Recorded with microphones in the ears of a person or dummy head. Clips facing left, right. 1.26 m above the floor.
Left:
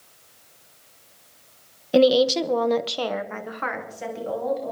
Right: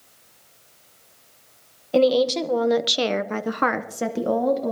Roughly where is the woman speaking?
Centre.